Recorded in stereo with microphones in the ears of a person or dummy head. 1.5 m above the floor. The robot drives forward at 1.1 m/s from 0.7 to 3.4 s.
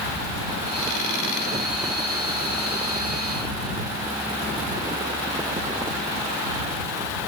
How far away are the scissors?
No scissors in this recording.